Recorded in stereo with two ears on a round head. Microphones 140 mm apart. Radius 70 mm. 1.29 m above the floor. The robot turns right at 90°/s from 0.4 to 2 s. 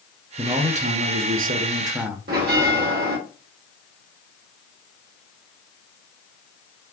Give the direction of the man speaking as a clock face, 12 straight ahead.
5 o'clock.